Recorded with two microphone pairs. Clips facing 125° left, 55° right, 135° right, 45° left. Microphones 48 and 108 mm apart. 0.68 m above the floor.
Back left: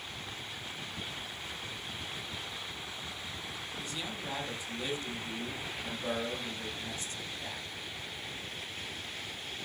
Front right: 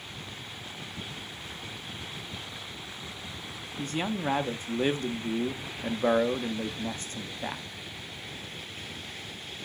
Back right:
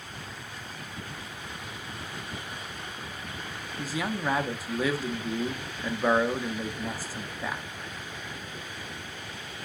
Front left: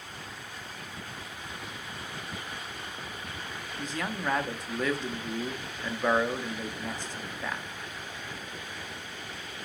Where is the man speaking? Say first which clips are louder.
Front right 12 dB, back right 3 dB; 45° right, 0.8 m.